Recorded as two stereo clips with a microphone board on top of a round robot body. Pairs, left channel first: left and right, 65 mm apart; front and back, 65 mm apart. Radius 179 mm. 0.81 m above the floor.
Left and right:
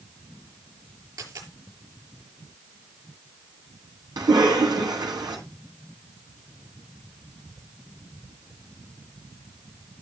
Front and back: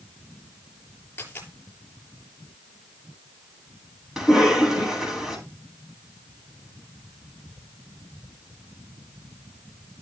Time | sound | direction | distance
1.2 | a dropped coin | 65° right | 6.5 m
4.2 | a cough | 95° right | 8 m